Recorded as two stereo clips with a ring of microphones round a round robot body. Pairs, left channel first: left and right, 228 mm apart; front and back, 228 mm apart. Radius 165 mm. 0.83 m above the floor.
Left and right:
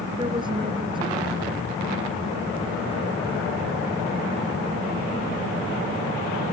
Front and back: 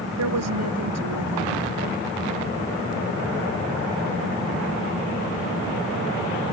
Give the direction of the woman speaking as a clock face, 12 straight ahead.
6 o'clock.